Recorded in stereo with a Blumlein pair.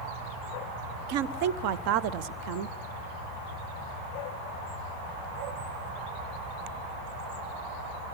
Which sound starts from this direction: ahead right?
A woman speaking, at 1.1 s.